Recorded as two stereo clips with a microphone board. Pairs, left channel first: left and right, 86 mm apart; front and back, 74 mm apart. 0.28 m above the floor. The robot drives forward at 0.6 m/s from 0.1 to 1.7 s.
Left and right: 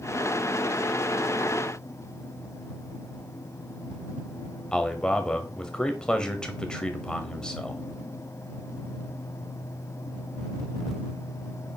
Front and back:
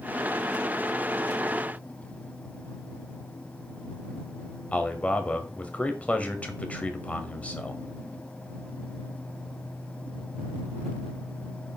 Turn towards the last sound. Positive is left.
turn(degrees=30)